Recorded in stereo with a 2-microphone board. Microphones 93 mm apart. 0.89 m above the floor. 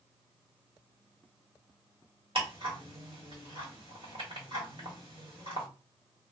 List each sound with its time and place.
2.4 s ticking: 60° right (ahead or behind), 1.3 m